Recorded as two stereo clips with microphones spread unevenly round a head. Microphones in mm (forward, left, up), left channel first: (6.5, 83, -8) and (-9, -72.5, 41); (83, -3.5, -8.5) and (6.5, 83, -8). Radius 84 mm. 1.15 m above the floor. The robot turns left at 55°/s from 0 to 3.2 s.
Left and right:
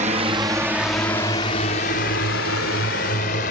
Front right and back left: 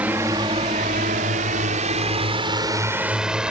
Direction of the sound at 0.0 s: 150° right.